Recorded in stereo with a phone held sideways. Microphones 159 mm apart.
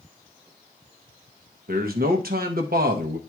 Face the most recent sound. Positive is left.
turn(degrees=-70)  # may be behind; listen again after turning